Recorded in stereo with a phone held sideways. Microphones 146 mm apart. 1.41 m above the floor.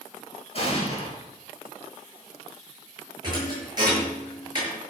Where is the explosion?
45° left (ahead or behind), 5.5 m.